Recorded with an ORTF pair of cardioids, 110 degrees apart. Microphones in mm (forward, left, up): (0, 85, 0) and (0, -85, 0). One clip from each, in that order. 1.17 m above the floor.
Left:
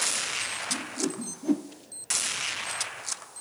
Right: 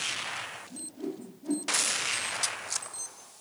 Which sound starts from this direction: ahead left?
A whoosh, at 0.7 s.